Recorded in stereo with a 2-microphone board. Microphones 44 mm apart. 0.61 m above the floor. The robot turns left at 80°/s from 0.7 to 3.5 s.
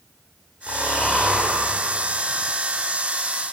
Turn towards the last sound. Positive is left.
turn(degrees=-15)  # may be behind; listen again after turning